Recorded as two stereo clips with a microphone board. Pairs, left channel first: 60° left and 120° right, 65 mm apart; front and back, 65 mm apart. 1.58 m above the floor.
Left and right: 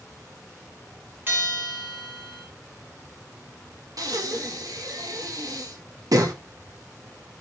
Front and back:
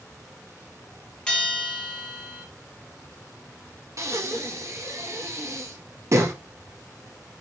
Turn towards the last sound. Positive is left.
turn(degrees=-140)